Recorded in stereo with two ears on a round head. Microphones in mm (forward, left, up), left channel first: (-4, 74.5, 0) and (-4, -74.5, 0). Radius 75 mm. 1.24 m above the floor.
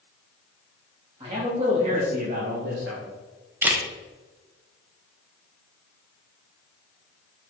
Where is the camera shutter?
10° right (ahead or behind), 1.2 m.